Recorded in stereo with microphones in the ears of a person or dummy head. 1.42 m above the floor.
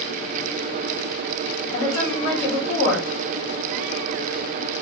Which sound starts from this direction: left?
A woman speaking, at 1.7 s.